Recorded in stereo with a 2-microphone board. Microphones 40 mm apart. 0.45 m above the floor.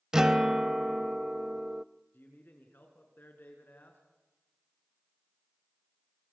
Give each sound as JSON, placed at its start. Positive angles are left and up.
{"t": 0.1, "sound": "a guitar", "side_deg": -15, "distance_m": 0.5}
{"t": 2.1, "sound": "a man speaking", "side_deg": 55, "distance_m": 4.5}